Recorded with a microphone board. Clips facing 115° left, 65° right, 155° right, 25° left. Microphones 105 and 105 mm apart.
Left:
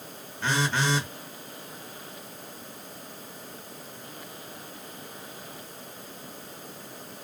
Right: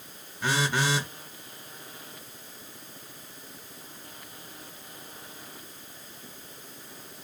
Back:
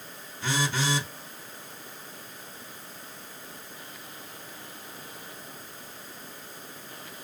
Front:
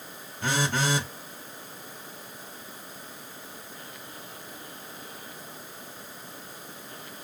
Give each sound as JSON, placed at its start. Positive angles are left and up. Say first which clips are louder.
{"t": 0.4, "sound": "a phone buzzing", "louder": "even, front 2 dB", "azimuth_deg": 10, "distance_m": 1.4}